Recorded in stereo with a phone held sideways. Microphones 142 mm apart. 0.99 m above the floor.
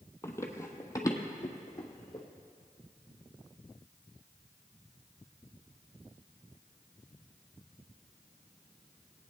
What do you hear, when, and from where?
0.2 s running footsteps: 20° left (ahead or behind), 1.2 m; by 2.2 s 25° left (ahead or behind), 2 m